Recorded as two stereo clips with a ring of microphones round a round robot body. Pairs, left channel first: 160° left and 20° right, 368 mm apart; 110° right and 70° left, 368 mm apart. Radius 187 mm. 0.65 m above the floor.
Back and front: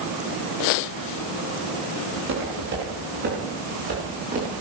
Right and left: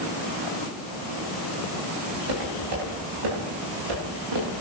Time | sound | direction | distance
2.1 | footsteps | 35° left | 8.5 m